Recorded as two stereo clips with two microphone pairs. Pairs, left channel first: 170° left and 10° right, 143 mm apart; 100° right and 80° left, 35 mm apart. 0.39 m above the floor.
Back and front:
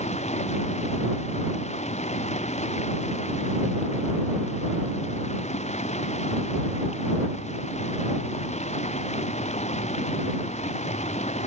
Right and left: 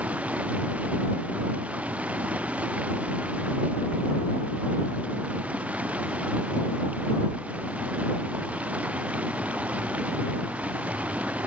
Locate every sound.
0.0 s running water: 130° left